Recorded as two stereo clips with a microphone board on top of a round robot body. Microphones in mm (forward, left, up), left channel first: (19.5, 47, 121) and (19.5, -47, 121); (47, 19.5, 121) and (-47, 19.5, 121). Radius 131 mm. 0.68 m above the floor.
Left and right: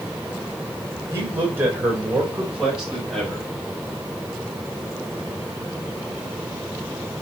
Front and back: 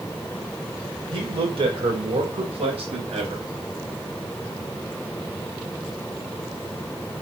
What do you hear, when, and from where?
1.1 s a man speaking: 155° right, 3.5 m; by 3.5 s 175° left, 4 m